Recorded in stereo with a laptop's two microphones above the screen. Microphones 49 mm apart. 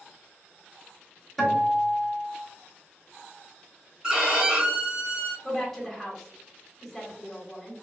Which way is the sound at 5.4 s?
5° left (ahead or behind).